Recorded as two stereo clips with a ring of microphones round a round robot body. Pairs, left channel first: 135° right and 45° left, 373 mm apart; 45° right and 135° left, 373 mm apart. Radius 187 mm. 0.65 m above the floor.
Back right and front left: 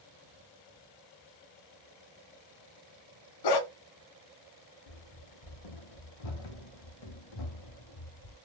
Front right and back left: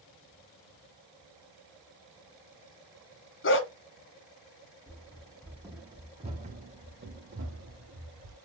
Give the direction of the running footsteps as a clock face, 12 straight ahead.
4 o'clock.